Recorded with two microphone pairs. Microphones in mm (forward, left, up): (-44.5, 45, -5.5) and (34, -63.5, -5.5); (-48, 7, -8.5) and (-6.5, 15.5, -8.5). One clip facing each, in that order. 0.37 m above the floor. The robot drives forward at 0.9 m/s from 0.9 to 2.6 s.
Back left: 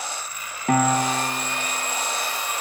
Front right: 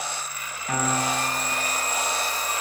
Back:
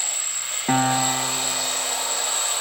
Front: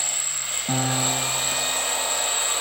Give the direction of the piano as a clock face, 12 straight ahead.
7 o'clock.